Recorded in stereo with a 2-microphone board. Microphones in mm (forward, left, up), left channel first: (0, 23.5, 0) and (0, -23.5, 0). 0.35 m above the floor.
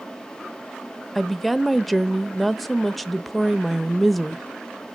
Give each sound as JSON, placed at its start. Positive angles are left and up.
{"t": 1.1, "sound": "a woman speaking", "side_deg": 5, "distance_m": 0.9}